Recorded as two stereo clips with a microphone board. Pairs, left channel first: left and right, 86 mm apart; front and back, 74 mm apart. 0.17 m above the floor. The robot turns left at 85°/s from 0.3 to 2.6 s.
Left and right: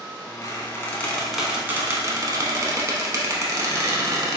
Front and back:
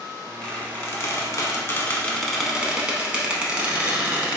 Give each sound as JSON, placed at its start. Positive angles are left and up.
{"t": 0.4, "sound": "a squeak", "azimuth_deg": 75, "distance_m": 0.5}